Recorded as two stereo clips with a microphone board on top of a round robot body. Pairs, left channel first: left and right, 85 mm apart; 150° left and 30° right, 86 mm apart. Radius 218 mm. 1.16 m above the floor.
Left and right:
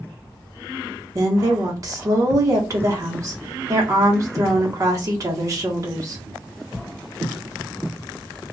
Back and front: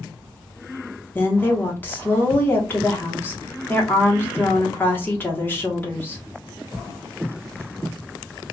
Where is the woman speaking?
140° right, 1.0 m.